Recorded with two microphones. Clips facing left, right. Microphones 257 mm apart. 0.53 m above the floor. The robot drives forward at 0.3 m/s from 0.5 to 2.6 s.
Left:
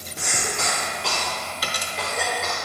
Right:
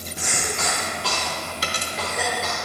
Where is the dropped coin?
30° right (ahead or behind), 0.7 m.